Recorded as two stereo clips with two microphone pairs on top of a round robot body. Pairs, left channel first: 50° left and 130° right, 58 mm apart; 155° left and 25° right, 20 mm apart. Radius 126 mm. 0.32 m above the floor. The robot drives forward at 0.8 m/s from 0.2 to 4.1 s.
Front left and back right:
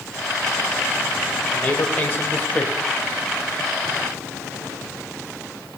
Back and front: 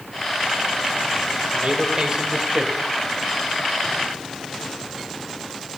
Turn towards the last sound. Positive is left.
turn(degrees=25)